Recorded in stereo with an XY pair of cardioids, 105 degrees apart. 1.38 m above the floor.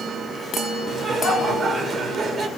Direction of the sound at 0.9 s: 45° right.